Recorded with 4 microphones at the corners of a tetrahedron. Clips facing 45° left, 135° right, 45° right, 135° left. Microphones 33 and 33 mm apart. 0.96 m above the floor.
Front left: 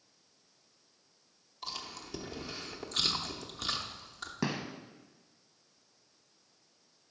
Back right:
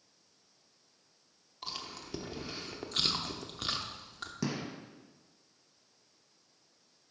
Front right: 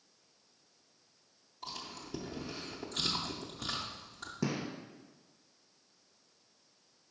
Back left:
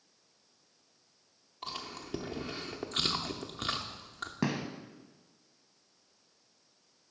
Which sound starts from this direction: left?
A gunshot, at 4.4 s.